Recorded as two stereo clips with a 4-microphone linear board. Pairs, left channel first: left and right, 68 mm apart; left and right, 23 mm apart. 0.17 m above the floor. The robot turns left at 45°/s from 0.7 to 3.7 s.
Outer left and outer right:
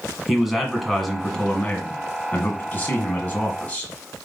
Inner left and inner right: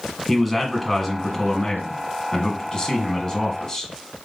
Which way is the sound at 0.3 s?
5° right (ahead or behind).